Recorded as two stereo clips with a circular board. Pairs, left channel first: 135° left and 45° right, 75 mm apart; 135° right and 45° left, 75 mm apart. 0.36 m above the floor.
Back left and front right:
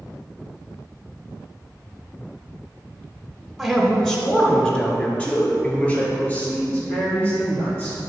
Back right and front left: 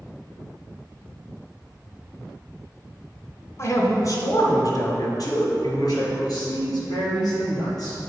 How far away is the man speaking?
About 1.1 m.